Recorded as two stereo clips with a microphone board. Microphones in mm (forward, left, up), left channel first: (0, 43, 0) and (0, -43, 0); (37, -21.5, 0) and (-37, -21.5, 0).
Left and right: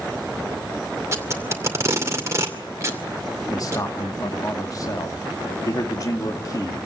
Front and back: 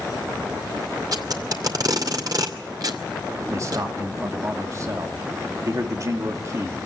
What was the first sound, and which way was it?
Tape being pulled, 145° right.